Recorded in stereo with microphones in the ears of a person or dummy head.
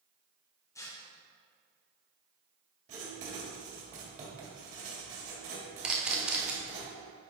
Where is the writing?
40° right (ahead or behind), 2 m.